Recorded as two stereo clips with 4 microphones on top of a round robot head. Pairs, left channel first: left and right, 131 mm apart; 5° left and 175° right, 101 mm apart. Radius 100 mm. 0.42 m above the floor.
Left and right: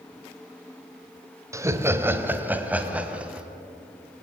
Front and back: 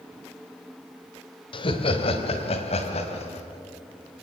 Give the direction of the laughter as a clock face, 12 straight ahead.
1 o'clock.